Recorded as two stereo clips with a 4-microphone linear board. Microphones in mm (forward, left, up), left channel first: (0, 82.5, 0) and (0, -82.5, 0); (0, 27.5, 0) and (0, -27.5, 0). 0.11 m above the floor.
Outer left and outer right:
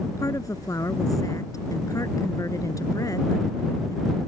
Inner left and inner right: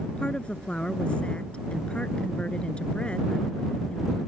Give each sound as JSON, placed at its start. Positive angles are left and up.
{"t": 0.2, "sound": "a woman speaking", "side_deg": 20}